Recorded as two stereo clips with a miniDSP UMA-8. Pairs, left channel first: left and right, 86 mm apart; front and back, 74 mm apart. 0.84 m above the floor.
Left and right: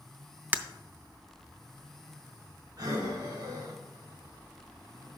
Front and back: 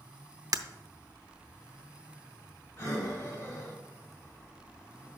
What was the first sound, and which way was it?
Breaking glass, 155° right.